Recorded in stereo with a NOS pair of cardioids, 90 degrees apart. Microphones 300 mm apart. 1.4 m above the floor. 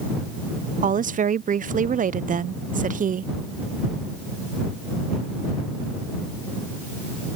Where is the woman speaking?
30° right.